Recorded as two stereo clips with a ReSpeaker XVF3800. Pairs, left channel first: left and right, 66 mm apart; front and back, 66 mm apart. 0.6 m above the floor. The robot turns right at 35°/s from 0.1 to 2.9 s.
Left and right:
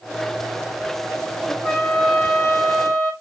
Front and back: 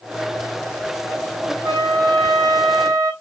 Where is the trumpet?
175° left, 3 m; by 3.1 s 140° right, 3 m.